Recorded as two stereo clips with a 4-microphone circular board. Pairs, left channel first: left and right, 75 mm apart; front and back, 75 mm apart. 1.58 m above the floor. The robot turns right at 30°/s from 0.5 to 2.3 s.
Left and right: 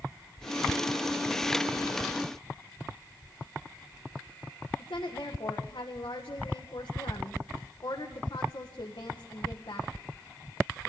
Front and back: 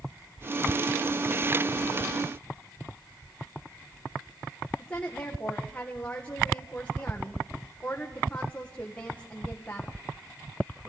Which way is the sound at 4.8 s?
70° left.